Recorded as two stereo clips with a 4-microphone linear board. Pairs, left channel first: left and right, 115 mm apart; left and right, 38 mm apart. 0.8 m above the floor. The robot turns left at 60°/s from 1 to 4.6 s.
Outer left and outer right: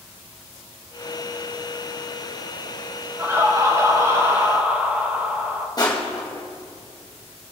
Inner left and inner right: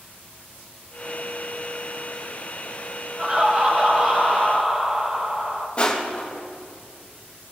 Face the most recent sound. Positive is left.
turn(degrees=35)  # may be behind; listen again after turning